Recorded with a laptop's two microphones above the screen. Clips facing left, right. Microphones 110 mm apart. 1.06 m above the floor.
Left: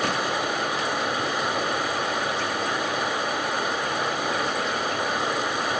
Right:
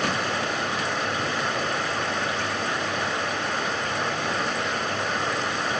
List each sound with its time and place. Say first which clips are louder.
0.0 s running water: left 1 dB; 10° left (ahead or behind), 1.4 m